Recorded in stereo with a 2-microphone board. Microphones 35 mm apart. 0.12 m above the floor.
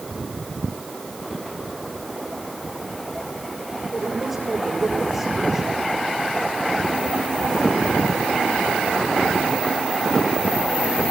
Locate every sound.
3.9 s a woman speaking: 10° right (ahead or behind), 8 m